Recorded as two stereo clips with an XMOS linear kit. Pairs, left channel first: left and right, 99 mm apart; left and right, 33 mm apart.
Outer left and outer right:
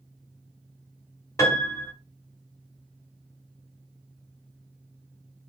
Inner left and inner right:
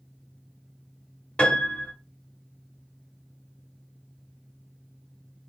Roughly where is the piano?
Left.